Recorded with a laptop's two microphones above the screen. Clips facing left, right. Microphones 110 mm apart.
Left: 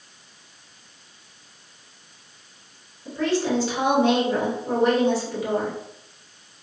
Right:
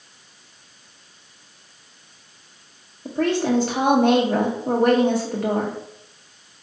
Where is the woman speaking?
55° right (ahead or behind), 0.8 m.